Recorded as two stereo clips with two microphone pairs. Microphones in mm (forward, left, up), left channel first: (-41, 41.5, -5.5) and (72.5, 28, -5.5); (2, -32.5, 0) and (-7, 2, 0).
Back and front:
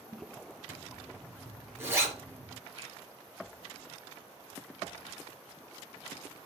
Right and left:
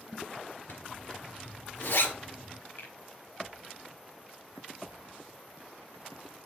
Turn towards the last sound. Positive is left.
turn(degrees=-60)